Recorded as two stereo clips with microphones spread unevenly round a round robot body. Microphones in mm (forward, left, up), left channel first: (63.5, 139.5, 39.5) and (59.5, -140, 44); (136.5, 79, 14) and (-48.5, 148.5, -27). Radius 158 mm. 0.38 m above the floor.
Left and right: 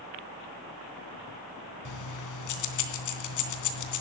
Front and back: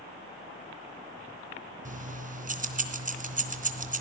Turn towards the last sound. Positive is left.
turn(degrees=115)